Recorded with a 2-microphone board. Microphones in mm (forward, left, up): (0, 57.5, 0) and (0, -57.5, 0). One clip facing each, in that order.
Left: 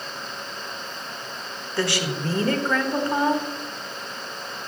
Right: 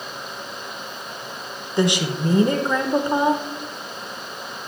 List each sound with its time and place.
1.8 s a woman speaking: 20° right (ahead or behind), 1.0 m